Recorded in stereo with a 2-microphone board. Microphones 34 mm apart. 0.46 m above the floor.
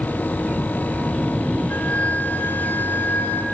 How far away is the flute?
About 0.9 m.